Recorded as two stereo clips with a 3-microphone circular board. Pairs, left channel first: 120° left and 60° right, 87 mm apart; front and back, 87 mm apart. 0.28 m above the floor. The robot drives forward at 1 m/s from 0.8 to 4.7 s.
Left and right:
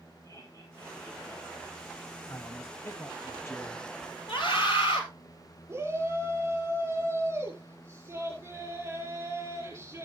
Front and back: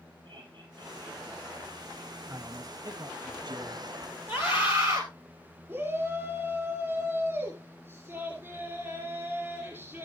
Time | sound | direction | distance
0.2 | laughter | 165° left | 7.5 m
2.3 | a man speaking | 155° left | 1.4 m
4.3 | a scream | 125° left | 5 m
5.7 | a shout | 120° right | 4.5 m